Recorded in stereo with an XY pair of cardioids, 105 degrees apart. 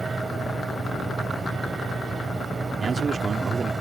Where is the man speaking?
35° right.